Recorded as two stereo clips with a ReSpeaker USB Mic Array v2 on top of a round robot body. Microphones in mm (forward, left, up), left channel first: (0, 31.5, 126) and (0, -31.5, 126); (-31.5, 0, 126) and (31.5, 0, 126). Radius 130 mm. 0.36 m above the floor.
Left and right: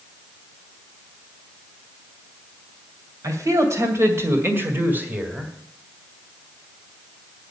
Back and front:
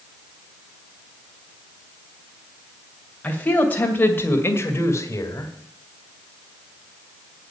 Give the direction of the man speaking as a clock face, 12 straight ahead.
4 o'clock.